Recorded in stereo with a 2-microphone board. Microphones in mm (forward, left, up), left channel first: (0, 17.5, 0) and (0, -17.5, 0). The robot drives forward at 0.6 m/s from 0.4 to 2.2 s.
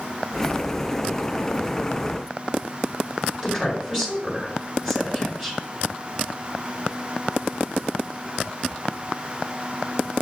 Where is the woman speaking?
10° right (ahead or behind), 1.4 m.